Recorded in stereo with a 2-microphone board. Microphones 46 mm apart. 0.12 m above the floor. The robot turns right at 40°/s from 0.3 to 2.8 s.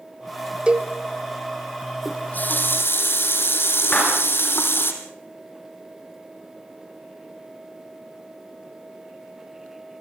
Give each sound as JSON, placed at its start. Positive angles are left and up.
{"t": 0.7, "sound": "a cowbell", "side_deg": -25, "distance_m": 1.7}
{"t": 2.0, "sound": "a running tap", "azimuth_deg": 25, "distance_m": 3.0}
{"t": 3.9, "sound": "a clap", "side_deg": 25, "distance_m": 9.5}